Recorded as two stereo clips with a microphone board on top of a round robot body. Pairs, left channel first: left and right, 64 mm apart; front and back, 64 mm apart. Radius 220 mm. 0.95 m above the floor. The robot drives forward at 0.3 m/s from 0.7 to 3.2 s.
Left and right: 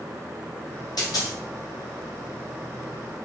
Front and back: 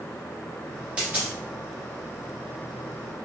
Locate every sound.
1.0 s a dropped coin: 110° left, 0.8 m; by 1.4 s 115° left, 0.9 m